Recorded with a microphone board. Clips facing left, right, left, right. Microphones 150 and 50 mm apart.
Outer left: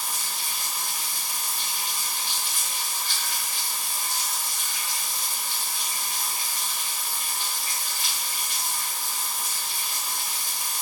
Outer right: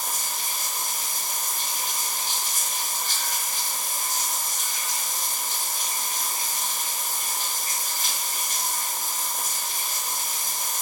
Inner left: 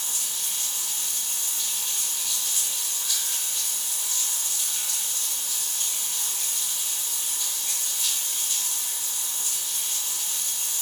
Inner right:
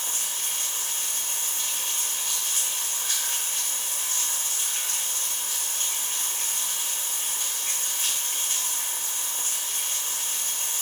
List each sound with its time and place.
0.0 s running water: 45° right (ahead or behind), 0.9 m